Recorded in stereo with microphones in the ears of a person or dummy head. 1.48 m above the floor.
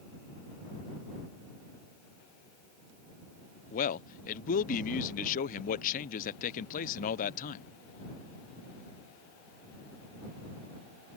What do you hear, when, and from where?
3.7 s a man speaking: 45° left (ahead or behind)